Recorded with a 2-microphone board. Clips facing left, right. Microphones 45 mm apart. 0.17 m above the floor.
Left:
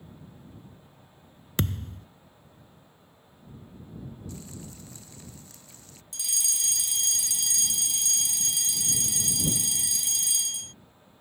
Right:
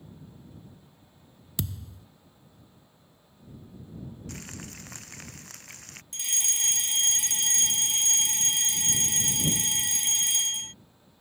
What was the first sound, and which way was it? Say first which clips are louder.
A thud: left 6 dB; 50° left (ahead or behind).